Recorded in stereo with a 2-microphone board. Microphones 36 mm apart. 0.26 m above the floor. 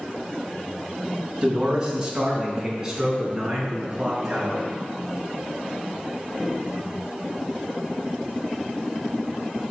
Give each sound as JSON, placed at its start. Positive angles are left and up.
{"t": 1.4, "sound": "a man speaking", "side_deg": -20, "distance_m": 2.0}